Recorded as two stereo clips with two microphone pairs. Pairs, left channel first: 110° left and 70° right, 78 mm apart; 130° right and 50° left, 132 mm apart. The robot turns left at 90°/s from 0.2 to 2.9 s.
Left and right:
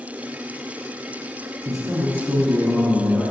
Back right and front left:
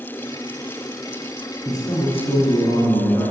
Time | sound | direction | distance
1.6 | a man speaking | 75° right | 2 m